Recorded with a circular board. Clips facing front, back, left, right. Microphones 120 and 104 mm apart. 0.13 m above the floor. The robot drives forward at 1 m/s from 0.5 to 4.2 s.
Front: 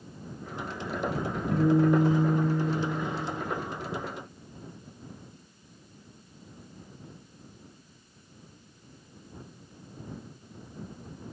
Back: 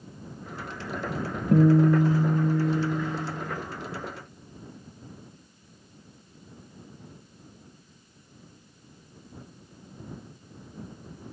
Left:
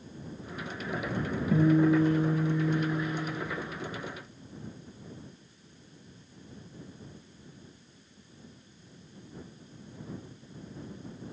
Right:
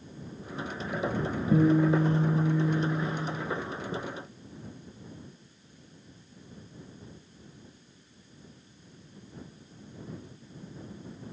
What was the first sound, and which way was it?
A guitar, 155° right.